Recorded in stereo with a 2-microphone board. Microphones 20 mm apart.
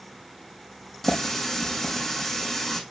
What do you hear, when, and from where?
1.0 s a running tap: 25° left (ahead or behind), 3.5 m